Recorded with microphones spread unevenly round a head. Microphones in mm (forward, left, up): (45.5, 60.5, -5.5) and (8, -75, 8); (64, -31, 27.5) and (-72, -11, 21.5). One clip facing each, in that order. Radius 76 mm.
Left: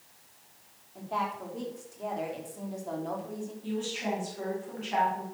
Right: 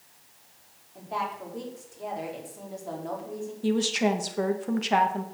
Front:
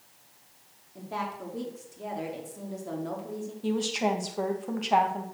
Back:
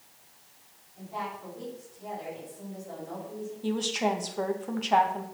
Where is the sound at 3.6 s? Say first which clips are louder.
Right 9 dB, front 1 dB; 95° right, 1.8 m.